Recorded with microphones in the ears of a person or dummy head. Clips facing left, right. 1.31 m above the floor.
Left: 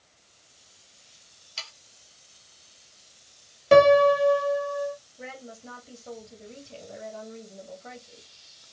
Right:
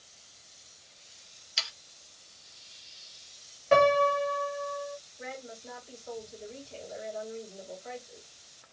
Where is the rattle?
I don't hear a rattle.